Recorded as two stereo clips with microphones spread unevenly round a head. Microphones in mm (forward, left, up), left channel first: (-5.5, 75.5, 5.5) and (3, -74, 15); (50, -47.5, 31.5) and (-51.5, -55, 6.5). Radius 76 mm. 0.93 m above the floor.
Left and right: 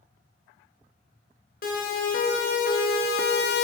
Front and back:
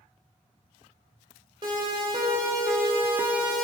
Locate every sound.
1.6 s a siren: 125° left, 3.5 m; by 3.6 s 100° left, 1.1 m